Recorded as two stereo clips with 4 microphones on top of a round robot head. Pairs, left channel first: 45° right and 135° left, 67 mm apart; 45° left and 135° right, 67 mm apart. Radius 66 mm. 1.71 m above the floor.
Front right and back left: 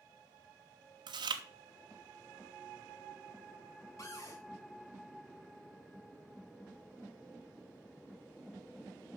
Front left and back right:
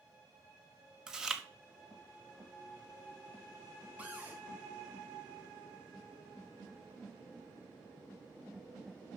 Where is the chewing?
145° left, 0.9 m.